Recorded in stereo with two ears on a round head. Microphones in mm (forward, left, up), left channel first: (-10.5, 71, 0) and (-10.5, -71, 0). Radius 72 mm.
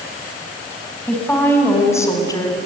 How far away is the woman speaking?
About 4 m.